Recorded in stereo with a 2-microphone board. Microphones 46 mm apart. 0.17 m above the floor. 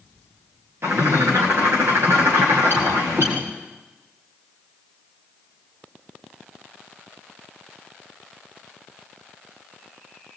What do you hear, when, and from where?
0.8 s a bird: 65° right (ahead or behind), 5.5 m